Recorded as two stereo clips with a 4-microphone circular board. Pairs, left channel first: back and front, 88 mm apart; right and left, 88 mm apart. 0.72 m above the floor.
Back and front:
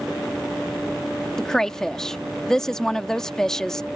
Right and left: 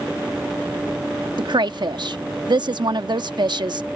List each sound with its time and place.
1.4 s a woman speaking: 95° left